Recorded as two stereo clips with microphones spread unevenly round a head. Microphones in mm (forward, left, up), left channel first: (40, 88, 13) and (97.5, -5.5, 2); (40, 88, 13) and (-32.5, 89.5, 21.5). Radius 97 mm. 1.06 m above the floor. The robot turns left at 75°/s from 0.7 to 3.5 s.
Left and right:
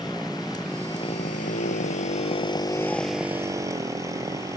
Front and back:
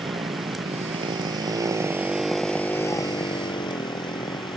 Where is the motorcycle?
150° right; by 4.6 s straight ahead.